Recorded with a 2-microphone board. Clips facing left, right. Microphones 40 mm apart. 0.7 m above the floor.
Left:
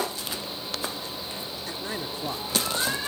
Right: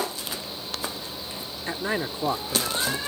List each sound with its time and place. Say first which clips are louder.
1.7 s a man speaking: right 8 dB; 35° right (ahead or behind)